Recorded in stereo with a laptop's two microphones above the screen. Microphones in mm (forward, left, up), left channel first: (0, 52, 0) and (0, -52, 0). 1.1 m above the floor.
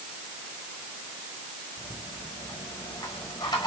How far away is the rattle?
About 5.5 m.